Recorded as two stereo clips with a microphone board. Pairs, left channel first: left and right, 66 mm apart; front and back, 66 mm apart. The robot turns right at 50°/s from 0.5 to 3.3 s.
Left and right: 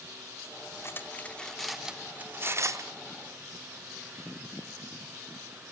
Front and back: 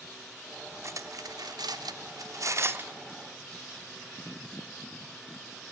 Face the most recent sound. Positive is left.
turn(degrees=-100)